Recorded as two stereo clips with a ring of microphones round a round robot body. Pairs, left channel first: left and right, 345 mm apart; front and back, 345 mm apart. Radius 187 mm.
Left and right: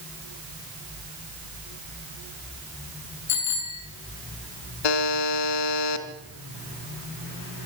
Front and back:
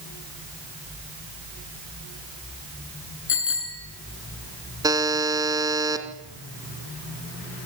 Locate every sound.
3.3 s a bicycle bell: 50° left, 6 m
4.8 s a buzzer: 100° left, 2 m